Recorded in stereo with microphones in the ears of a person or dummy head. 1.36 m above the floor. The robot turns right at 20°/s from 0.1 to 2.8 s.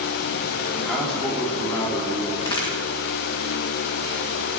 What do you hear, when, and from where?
0.8 s a man speaking: centre (ahead or behind), 3 m; by 2.3 s 30° left (ahead or behind), 3 m
2.4 s a crack: 25° left (ahead or behind), 2 m; by 2.7 s 20° left (ahead or behind), 2 m